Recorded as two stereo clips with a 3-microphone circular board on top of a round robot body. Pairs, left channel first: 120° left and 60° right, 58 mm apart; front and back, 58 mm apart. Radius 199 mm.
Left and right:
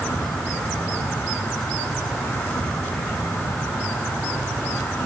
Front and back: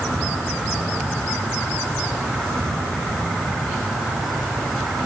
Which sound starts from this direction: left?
An insect, at 0.0 s.